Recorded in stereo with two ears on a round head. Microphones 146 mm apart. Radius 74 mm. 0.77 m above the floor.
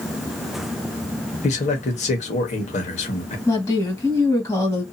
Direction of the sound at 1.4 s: 45° left (ahead or behind).